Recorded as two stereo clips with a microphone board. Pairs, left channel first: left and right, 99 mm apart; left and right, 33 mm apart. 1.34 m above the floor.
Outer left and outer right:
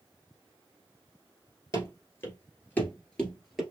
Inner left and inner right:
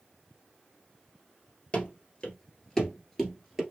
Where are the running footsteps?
35° left (ahead or behind), 1.8 m; by 3.6 s centre (ahead or behind), 1.6 m.